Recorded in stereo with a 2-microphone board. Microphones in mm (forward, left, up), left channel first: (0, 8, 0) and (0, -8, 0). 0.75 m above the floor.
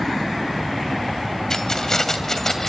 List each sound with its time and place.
1.5 s keys jangling: 40° left (ahead or behind), 2.5 m; by 2.7 s 25° left (ahead or behind), 2.5 m